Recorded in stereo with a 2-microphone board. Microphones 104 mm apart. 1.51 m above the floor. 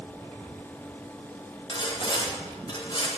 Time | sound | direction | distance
1.7 | sawing | 45° left (ahead or behind) | 7 m